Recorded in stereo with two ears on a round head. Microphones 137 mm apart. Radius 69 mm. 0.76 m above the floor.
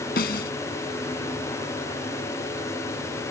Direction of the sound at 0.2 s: 65° left (ahead or behind).